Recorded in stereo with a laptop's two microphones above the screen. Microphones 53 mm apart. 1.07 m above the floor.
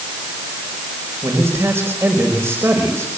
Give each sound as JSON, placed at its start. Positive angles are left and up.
{"t": 1.2, "sound": "a man speaking", "side_deg": -55, "distance_m": 5.0}